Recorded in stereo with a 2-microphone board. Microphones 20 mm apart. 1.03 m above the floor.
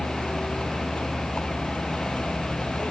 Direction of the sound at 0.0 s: 60° left (ahead or behind).